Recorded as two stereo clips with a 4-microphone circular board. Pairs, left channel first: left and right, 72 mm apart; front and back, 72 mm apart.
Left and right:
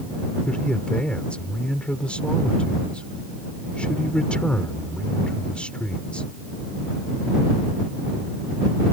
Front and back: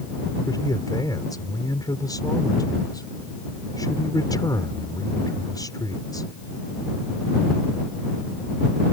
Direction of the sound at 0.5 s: 20° left.